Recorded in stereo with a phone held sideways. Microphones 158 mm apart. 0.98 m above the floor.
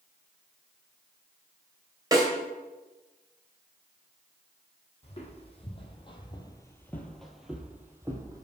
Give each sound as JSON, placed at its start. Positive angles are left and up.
{"t": 2.1, "sound": "a snare drum", "side_deg": -20, "distance_m": 2.0}
{"t": 5.0, "sound": "footsteps", "side_deg": 40, "distance_m": 1.7}